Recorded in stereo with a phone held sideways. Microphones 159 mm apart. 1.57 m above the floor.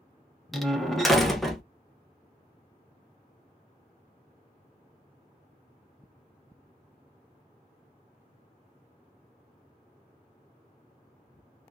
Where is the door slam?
Centre (ahead or behind), 0.7 m.